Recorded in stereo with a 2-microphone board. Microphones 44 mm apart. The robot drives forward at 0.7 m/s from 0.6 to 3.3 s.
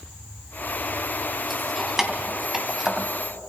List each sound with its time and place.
1.5 s keys jangling: 10° right (ahead or behind), 3 m; by 3.1 s 15° right (ahead or behind), 1.9 m